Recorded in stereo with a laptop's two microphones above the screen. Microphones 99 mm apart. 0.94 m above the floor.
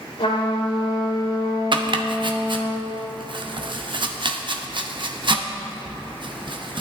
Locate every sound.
0.2 s a trumpet: 85° left, 3 m
1.7 s chopping: 55° right (ahead or behind), 0.6 m